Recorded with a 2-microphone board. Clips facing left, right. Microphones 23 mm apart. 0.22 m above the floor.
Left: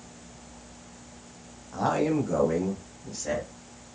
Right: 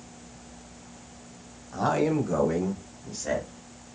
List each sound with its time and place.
1.7 s a man speaking: 5° right (ahead or behind), 1.4 m